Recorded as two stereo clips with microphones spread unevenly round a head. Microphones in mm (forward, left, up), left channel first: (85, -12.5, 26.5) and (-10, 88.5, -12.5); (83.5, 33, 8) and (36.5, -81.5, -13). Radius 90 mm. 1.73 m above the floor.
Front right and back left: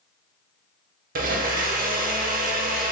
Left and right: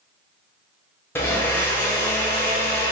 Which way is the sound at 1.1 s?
125° left.